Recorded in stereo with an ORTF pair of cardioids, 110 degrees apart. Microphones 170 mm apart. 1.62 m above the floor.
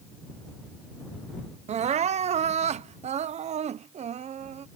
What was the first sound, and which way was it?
Crying, 40° right.